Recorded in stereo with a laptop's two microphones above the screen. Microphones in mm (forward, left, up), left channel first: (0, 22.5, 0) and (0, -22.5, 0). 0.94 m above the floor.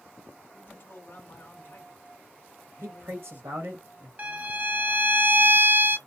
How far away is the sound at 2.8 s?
About 1.0 m.